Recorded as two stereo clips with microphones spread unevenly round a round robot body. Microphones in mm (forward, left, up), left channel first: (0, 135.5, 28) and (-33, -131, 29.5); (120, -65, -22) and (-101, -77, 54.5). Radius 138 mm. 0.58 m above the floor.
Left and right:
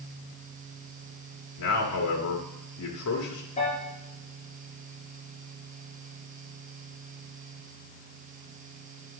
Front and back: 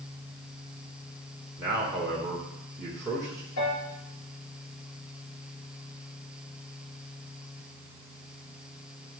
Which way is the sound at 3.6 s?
20° left.